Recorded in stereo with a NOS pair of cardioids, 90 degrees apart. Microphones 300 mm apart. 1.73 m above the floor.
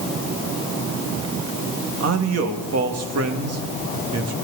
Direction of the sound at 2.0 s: 55° right.